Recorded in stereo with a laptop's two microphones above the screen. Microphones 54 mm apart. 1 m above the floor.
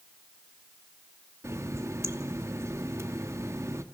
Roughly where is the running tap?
Right.